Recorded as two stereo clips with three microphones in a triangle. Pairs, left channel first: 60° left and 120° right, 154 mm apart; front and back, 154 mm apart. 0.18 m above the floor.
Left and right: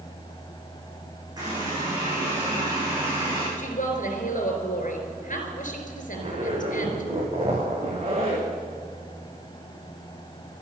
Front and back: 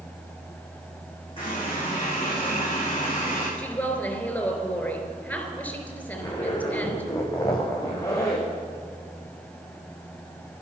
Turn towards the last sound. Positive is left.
turn(degrees=-70)